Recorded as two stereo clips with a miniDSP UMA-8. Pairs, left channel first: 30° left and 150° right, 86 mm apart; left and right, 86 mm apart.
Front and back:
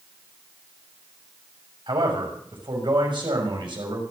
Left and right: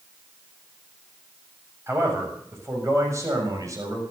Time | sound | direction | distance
1.9 | a man speaking | 150° right | 7 m